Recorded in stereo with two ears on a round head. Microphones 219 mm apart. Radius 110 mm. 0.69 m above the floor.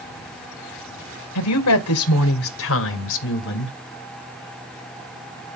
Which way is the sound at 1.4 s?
75° left (ahead or behind).